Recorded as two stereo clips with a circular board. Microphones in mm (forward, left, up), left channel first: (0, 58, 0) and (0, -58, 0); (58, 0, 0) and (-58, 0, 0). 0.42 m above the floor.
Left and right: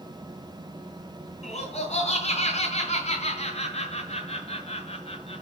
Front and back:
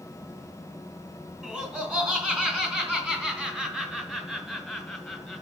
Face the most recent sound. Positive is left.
turn(degrees=85)